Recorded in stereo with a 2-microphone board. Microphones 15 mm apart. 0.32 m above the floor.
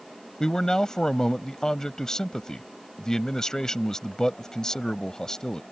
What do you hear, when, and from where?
0.4 s a man speaking: 45° left (ahead or behind)